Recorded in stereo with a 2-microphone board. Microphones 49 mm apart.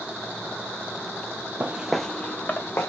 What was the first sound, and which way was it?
Footsteps, 35° right (ahead or behind).